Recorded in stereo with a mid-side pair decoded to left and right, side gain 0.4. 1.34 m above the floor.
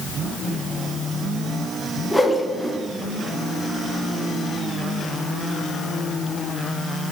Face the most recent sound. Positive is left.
turn(degrees=10)